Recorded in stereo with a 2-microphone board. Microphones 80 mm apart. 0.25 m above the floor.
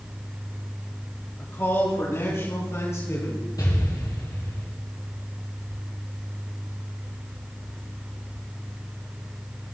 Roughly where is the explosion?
Left.